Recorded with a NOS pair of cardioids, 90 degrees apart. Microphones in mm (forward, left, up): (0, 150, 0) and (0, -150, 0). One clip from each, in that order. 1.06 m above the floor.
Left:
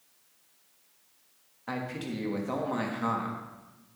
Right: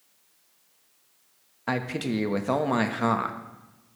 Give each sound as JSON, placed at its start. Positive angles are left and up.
{"t": 1.7, "sound": "a man speaking", "azimuth_deg": -50, "distance_m": 1.2}